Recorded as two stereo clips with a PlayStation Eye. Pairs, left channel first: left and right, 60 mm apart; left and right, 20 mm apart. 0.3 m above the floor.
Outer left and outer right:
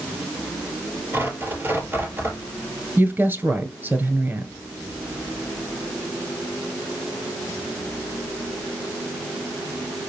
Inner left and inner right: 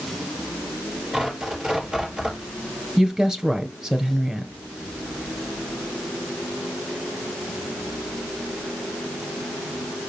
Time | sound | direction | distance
1.1 | tearing paper | 35° right (ahead or behind) | 5.5 m
3.0 | a woman speaking | 40° right (ahead or behind) | 1.9 m